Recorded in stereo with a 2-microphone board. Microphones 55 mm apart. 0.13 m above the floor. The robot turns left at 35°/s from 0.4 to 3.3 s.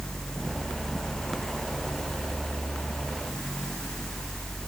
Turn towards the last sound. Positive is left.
No sound to turn to.